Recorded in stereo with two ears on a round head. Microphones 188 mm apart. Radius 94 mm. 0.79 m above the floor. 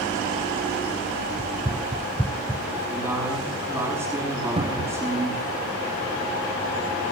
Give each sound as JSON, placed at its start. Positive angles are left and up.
{"t": 1.4, "sound": "running footsteps", "side_deg": -25, "distance_m": 1.1}
{"t": 2.9, "sound": "a man speaking", "side_deg": -15, "distance_m": 6.5}
{"t": 4.6, "sound": "a cupboard door", "side_deg": -30, "distance_m": 0.9}